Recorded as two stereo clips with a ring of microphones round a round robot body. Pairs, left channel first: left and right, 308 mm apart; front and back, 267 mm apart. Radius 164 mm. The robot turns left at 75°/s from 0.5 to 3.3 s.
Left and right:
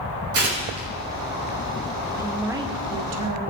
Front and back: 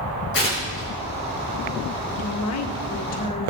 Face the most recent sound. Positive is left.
turn(degrees=-70)